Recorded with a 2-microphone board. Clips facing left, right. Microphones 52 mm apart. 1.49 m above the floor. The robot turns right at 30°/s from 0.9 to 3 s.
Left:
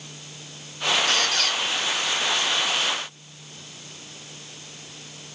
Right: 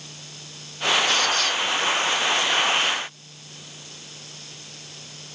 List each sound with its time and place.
1.1 s a squeak: 55° left (ahead or behind), 2.5 m; by 1.6 s 40° left (ahead or behind), 2.5 m